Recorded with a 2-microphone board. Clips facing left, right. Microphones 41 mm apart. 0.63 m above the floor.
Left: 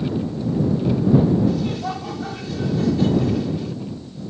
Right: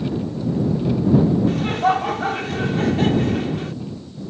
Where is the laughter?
60° right (ahead or behind).